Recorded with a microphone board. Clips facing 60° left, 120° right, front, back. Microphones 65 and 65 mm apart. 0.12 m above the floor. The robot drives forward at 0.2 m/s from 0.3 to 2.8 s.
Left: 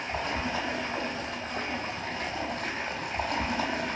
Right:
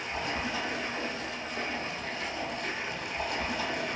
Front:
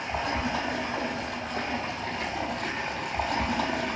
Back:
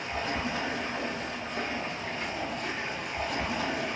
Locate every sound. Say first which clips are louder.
0.0 s running water: left 2 dB, front 3 dB; 15° left, 1.2 m; by 4.0 s 25° left, 0.7 m